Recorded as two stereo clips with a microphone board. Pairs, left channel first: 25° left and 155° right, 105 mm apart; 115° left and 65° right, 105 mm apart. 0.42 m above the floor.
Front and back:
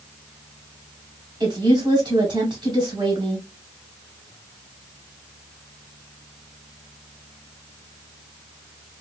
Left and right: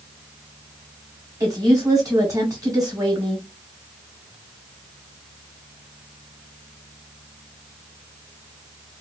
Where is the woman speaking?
120° right, 1.8 m.